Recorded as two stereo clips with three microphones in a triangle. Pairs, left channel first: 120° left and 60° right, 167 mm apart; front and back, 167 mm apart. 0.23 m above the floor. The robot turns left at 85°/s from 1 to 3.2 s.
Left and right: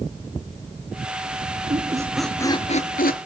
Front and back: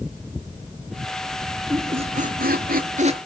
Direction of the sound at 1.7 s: 105° right.